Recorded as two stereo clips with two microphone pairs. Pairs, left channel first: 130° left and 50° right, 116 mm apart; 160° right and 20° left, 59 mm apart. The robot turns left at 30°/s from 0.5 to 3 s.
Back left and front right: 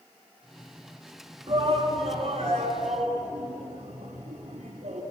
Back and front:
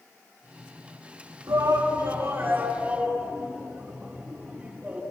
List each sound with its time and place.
1.5 s a shout: 5° right, 5 m; by 5.0 s 55° right, 5 m